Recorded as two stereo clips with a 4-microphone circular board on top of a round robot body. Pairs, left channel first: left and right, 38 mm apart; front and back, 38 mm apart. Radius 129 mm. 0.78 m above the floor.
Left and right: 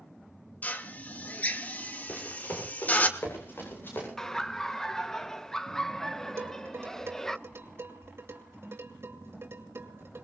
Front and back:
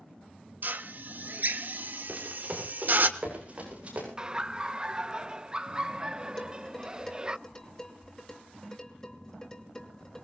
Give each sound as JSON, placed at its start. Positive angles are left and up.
{"t": 0.6, "sound": "a drill", "azimuth_deg": 145, "distance_m": 1.3}
{"t": 2.1, "sound": "running footsteps", "azimuth_deg": 125, "distance_m": 7.0}
{"t": 4.2, "sound": "laughter", "azimuth_deg": 155, "distance_m": 0.6}
{"t": 6.4, "sound": "dishes clattering", "azimuth_deg": -70, "distance_m": 2.5}